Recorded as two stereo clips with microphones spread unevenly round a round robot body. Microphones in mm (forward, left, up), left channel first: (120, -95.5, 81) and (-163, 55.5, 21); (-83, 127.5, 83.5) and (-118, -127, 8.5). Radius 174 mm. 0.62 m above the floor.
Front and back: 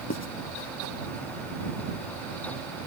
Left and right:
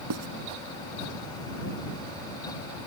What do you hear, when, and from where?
0.1 s writing: 85° right